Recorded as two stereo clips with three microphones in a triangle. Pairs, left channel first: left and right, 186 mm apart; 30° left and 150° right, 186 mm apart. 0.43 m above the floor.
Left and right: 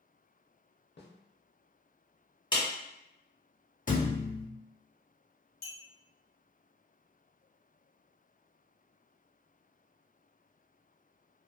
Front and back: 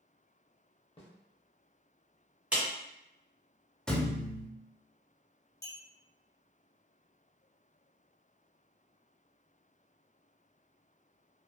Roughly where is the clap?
Behind left.